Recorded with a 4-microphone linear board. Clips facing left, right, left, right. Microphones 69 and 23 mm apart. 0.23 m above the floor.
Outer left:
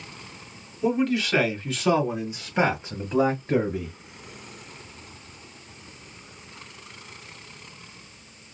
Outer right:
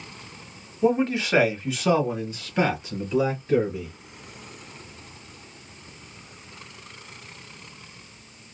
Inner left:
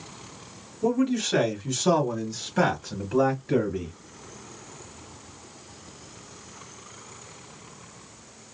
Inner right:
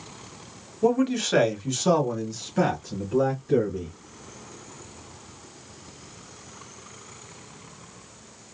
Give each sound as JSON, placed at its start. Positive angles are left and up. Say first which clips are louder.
{"t": 0.8, "sound": "a man speaking", "louder": "outer right 2 dB, inner right 2 dB", "side_deg": -35, "distance_m": 1.2}